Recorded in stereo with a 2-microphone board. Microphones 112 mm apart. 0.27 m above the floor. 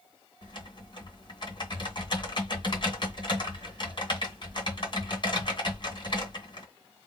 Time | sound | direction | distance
0.4 | typing on a keyboard | 45° left (ahead or behind) | 2.5 m